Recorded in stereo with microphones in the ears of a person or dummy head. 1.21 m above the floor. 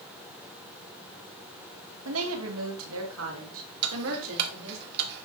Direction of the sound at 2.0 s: 85° right.